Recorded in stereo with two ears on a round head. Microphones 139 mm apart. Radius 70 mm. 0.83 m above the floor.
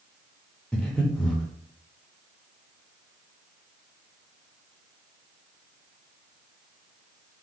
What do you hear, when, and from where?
0.7 s breathing: 5° left (ahead or behind), 0.6 m